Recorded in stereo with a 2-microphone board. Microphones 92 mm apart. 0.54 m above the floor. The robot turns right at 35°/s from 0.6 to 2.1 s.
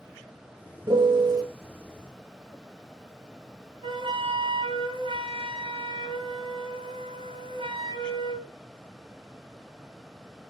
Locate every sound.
0.9 s a piano: 60° right (ahead or behind), 1.6 m; by 1.4 s 45° right (ahead or behind), 1.6 m
3.8 s a flute: 70° right (ahead or behind), 4 m